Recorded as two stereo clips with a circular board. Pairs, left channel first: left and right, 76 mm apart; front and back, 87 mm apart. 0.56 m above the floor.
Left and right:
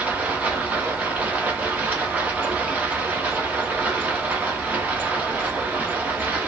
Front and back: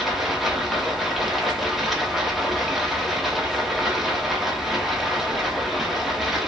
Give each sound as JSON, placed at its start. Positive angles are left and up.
{"t": 0.0, "sound": "running water", "azimuth_deg": -95, "distance_m": 0.8}